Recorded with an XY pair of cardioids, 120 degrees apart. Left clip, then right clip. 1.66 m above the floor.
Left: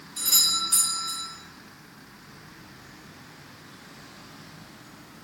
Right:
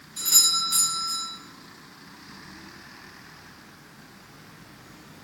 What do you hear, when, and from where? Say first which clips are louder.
0.2 s a doorbell: right 2 dB; 5° left, 1.7 m